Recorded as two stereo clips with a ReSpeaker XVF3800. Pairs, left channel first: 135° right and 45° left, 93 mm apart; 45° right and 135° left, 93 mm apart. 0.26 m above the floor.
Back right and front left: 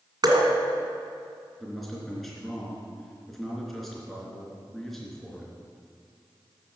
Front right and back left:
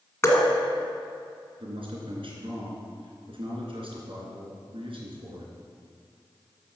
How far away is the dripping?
About 1.8 m.